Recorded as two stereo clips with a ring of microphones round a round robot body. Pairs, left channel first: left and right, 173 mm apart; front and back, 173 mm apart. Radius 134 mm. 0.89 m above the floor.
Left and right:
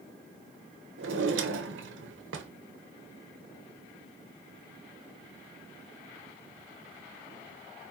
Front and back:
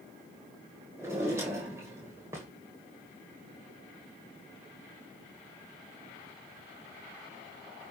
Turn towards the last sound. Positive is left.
turn(degrees=-100)